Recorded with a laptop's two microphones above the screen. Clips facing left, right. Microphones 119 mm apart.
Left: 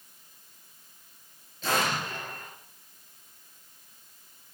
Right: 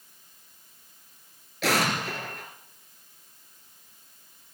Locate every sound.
1.6 s an explosion: 70° right (ahead or behind), 2.5 m